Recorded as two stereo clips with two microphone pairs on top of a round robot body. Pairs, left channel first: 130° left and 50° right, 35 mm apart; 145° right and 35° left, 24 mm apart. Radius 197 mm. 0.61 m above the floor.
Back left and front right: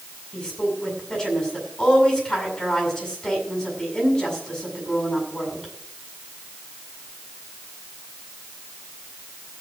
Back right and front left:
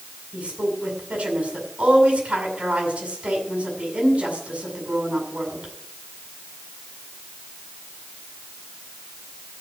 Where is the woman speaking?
55° left, 7 m.